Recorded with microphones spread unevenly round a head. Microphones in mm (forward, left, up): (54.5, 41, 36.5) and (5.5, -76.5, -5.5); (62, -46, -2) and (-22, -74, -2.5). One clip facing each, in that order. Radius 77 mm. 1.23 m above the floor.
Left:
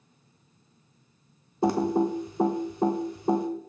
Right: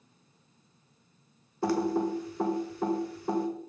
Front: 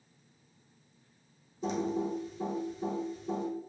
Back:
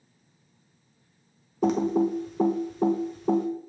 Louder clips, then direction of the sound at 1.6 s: Left 4 dB, back 9 dB; 140° left.